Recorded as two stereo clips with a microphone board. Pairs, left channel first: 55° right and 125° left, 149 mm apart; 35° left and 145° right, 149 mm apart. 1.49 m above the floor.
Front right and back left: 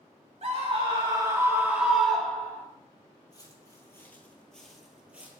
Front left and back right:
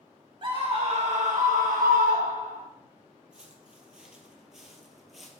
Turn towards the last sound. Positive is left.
turn(degrees=125)